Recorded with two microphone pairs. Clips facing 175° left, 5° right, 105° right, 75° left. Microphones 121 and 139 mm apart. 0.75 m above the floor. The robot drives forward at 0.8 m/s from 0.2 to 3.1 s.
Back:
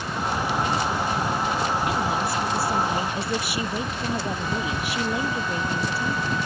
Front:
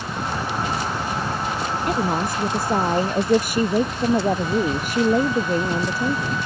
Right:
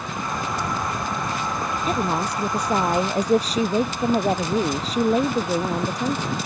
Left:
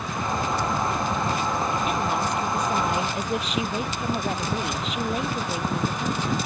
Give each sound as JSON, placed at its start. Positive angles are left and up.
{"t": 1.9, "sound": "a woman speaking", "azimuth_deg": -50}